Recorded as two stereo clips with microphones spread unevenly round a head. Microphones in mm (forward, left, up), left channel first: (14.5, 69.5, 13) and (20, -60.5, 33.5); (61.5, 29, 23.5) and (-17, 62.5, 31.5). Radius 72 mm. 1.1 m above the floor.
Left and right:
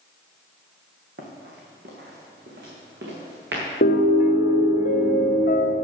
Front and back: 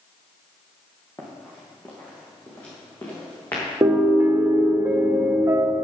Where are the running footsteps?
105° right, 3 m; by 3.6 s 100° right, 4.5 m.